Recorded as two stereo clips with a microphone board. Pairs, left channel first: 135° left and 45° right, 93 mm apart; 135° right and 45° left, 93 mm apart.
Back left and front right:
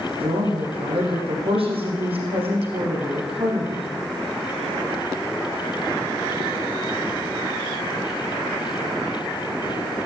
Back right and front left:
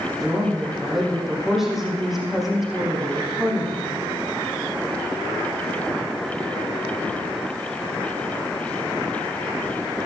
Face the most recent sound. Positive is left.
turn(degrees=-45)